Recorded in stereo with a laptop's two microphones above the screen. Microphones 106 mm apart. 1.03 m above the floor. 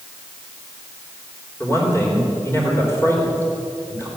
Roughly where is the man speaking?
Left.